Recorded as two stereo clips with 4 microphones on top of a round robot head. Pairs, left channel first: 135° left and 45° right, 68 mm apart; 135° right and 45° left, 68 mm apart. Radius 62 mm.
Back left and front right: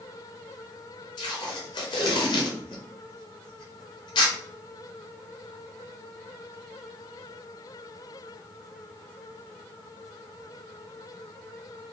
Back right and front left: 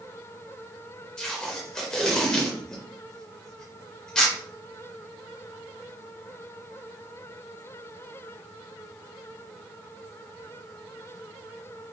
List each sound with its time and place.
1.2 s tape being pulled: 145° left, 0.7 m